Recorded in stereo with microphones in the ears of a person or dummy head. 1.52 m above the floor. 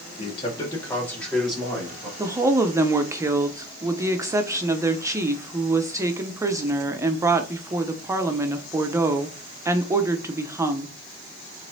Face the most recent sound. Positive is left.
turn(degrees=-15)  # may be behind; listen again after turning